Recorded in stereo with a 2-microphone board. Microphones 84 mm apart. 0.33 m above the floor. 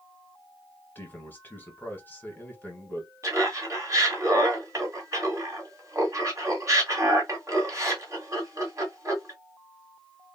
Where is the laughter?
40° right (ahead or behind), 1.6 m.